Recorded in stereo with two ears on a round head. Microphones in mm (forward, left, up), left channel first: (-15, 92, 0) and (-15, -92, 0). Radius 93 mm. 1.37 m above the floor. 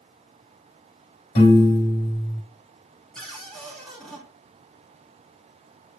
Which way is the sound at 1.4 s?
50° left (ahead or behind).